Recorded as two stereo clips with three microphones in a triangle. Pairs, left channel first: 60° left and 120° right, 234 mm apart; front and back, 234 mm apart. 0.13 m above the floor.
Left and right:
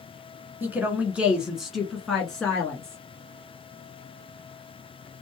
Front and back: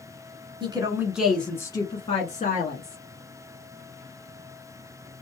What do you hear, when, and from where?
0.6 s a woman speaking: 170° left, 1.2 m; by 3.0 s 25° right, 1.7 m